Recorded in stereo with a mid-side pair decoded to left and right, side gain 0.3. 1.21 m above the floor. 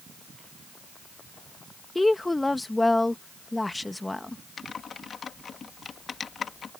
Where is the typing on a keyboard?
65° left.